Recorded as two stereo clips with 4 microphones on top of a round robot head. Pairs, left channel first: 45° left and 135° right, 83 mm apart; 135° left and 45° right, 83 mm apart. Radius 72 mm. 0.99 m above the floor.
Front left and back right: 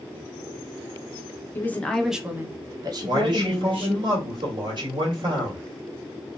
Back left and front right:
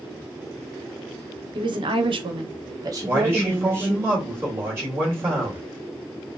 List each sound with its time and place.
1.6 s a woman speaking: 15° right, 0.8 m; by 4.0 s 115° right, 1.5 m
3.0 s a man speaking: 105° right, 1.9 m